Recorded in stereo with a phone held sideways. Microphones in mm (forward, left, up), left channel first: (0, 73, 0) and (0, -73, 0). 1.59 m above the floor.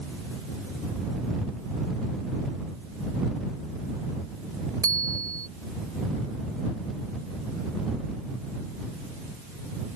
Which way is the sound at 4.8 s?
25° right (ahead or behind).